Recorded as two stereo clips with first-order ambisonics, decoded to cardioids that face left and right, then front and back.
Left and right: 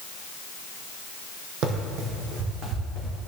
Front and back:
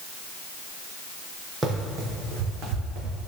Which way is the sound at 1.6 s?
110° right.